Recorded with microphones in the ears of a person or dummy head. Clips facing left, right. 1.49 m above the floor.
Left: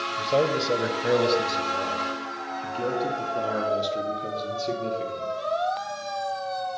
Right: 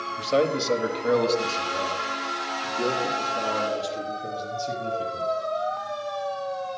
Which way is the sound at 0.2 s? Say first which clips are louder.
Right 1 dB; centre (ahead or behind).